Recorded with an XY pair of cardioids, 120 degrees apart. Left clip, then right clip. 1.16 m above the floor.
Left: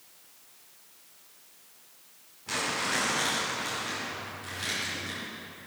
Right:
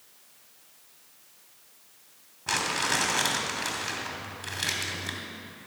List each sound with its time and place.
2.5 s crumpling: 55° right, 2.5 m